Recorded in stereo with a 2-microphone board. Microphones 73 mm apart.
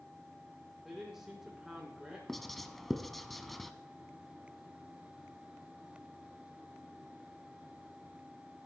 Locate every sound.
0.8 s a man speaking: 5° right (ahead or behind), 7.5 m
2.3 s writing: centre (ahead or behind), 1.0 m